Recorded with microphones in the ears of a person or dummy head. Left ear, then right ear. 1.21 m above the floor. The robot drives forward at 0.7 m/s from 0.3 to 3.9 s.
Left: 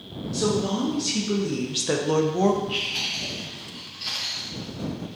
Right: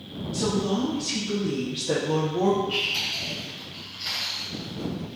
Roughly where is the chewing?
Centre.